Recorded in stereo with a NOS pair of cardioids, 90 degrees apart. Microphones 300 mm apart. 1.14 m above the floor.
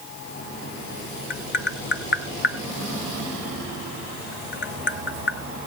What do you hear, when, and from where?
1.3 s tapping: 35° left, 1.0 m